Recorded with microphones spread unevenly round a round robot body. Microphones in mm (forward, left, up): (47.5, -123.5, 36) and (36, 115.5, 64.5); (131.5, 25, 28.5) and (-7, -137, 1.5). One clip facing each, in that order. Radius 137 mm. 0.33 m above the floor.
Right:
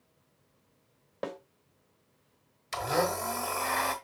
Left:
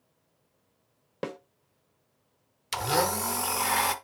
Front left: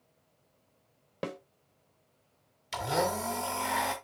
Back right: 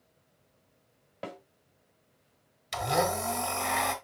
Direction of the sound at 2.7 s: 140° left.